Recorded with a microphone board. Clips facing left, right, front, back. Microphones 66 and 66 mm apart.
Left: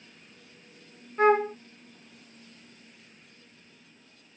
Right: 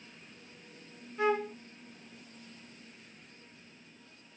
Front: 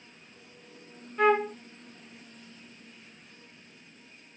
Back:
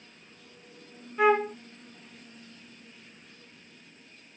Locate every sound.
1.2 s a flute: 95° left